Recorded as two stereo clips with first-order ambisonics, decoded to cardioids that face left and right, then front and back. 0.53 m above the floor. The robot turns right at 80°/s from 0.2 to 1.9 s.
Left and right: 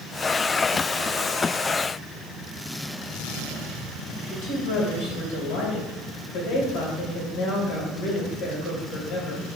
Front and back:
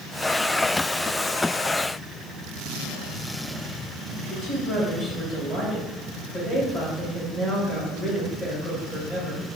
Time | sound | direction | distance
4.3 | a woman speaking | 95° left | 3 m